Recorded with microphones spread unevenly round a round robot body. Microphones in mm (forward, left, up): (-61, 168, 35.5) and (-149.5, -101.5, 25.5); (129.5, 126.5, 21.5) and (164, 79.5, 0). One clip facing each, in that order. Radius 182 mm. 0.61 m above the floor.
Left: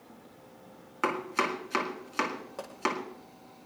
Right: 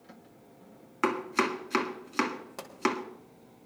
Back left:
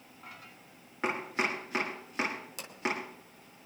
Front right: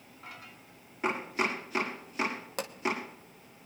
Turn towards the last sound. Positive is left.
turn(degrees=-45)